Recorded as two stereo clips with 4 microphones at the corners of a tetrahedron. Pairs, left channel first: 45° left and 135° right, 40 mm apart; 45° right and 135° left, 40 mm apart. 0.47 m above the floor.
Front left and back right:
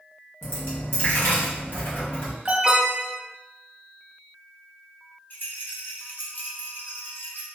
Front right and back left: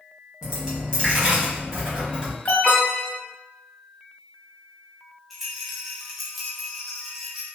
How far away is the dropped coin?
About 1.5 m.